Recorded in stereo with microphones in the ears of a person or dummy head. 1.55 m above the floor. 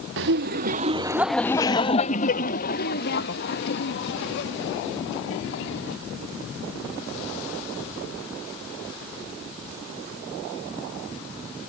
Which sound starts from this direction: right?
Laughter, at 0.2 s.